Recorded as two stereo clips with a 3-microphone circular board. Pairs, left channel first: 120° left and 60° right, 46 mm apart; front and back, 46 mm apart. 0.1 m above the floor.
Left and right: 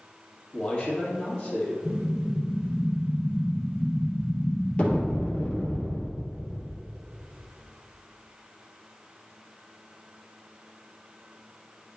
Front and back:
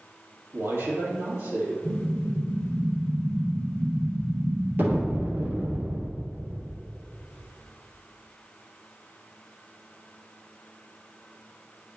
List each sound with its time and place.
0.5 s a man speaking: 175° right, 2.5 m
1.9 s an explosion: straight behind, 2.5 m